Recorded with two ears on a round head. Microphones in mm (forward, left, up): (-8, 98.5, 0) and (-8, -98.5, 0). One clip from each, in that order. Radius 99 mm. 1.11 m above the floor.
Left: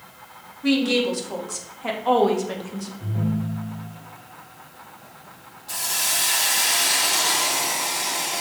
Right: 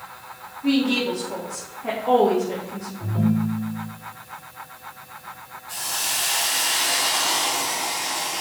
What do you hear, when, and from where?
0.6 s a woman speaking: 75° left (ahead or behind), 2.5 m; by 2.9 s 65° left (ahead or behind), 1.8 m
3.0 s a ringtone: 75° right (ahead or behind), 2 m
5.7 s a hiss: 65° left (ahead or behind), 2.5 m